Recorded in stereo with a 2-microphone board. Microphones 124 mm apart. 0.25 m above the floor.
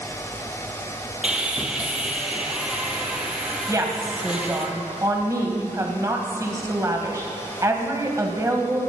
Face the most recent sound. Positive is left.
turn(degrees=-25)  # may be behind; listen again after turning